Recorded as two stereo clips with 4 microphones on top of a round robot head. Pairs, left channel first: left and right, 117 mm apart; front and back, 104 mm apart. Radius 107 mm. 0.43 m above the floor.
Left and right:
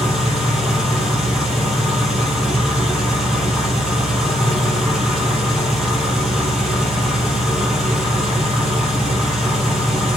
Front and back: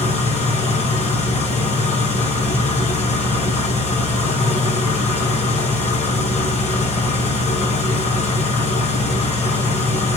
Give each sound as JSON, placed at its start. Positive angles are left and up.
{"t": 0.0, "sound": "an engine running", "azimuth_deg": 0, "distance_m": 3.5}